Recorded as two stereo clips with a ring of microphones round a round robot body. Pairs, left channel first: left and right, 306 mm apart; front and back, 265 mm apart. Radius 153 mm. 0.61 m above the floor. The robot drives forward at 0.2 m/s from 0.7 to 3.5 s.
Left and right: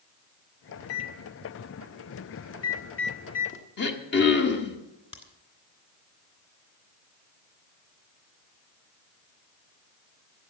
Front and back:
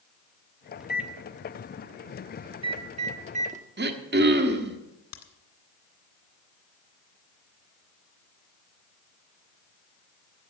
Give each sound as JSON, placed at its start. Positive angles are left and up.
{"t": 0.8, "sound": "a microwave", "azimuth_deg": 95, "distance_m": 1.2}
{"t": 3.8, "sound": "throat clearing", "azimuth_deg": 140, "distance_m": 1.3}
{"t": 5.1, "sound": "a crack", "azimuth_deg": 20, "distance_m": 1.8}